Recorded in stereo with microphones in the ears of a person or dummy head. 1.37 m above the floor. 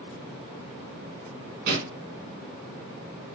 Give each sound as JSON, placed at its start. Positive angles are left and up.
{"t": 1.7, "sound": "a pop", "side_deg": -55, "distance_m": 4.0}